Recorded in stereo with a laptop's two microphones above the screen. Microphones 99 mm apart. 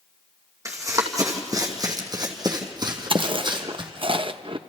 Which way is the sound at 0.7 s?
30° right (ahead or behind).